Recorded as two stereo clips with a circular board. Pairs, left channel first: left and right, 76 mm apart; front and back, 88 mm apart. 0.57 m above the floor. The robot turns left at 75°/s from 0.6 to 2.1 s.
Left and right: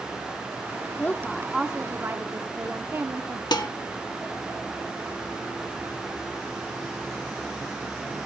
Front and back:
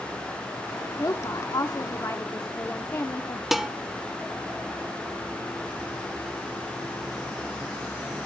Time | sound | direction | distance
1.0 | a woman speaking | 35° left | 0.9 m
3.5 | dishes clattering | 95° left | 1.0 m